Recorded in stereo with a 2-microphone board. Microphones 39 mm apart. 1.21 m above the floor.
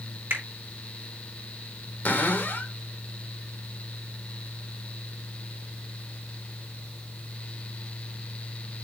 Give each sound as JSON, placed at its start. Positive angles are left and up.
{"t": 0.3, "sound": "a finger snap", "side_deg": -85, "distance_m": 3.5}
{"t": 2.0, "sound": "a cupboard door", "side_deg": 50, "distance_m": 1.8}